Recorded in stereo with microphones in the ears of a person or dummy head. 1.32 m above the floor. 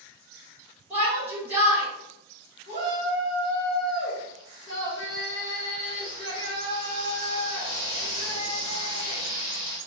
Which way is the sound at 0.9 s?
10° right (ahead or behind).